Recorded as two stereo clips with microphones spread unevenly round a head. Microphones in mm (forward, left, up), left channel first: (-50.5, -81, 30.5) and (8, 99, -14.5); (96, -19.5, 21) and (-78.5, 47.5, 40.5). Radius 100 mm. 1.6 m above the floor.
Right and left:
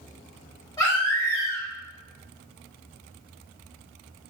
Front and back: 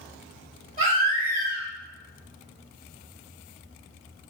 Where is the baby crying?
160° right, 1.4 m.